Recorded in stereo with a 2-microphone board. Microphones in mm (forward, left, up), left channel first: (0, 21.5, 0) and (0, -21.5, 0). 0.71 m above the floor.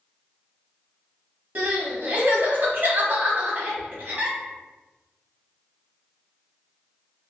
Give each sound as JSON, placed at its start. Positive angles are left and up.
{"t": 1.6, "sound": "crying", "side_deg": -45, "distance_m": 1.2}